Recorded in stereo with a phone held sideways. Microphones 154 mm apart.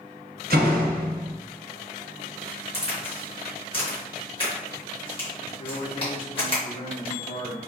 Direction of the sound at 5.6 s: 35° left (ahead or behind).